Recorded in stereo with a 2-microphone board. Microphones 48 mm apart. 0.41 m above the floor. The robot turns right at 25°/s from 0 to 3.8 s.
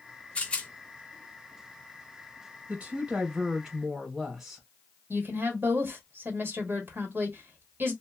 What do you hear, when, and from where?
0.3 s a rattle: 30° left (ahead or behind), 0.7 m; by 0.7 s 20° left (ahead or behind), 0.7 m
2.7 s a woman speaking: 30° right (ahead or behind), 1.7 m; by 4.6 s 5° right (ahead or behind), 1.7 m
5.1 s a woman speaking: 50° right (ahead or behind), 1.2 m